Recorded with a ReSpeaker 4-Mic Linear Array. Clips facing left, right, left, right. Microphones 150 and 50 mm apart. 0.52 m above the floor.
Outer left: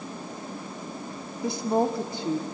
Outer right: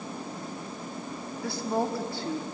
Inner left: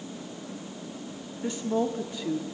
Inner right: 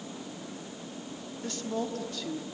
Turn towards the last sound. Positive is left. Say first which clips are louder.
# outer left 5 dB, inner left 6 dB
turn(degrees=20)  # may be behind; listen again after turning